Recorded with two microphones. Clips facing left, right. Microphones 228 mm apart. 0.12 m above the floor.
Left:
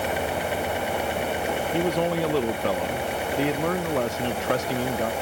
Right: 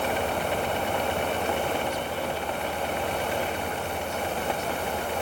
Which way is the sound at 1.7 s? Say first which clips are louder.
Left 7 dB; 70° left (ahead or behind).